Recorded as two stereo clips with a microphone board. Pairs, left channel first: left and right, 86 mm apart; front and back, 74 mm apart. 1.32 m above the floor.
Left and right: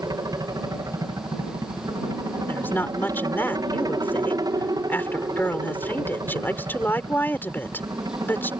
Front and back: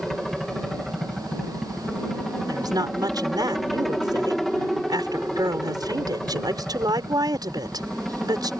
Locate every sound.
0.0 s a helicopter: 85° right
2.5 s a woman speaking: 155° left